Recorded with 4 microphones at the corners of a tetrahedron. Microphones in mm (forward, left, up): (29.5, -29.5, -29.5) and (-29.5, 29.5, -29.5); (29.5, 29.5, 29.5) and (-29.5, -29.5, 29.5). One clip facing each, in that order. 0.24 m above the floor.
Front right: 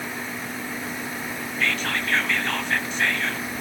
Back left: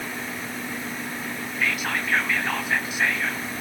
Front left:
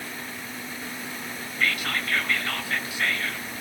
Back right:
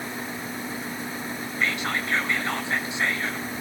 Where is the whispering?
160° right, 1.1 m.